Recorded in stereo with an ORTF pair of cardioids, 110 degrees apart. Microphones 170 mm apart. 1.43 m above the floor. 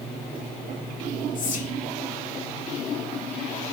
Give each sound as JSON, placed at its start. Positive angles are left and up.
{"t": 1.4, "sound": "whispering", "azimuth_deg": 50, "distance_m": 0.9}